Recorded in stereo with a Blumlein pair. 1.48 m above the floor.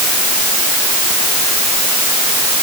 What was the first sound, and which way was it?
Only background noise.